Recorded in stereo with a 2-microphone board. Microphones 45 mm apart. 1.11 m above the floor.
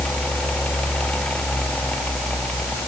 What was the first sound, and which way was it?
Only background noise.